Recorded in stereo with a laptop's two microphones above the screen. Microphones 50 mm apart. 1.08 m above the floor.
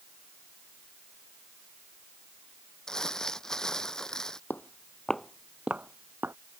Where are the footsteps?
35° left (ahead or behind); by 6.3 s 45° right (ahead or behind).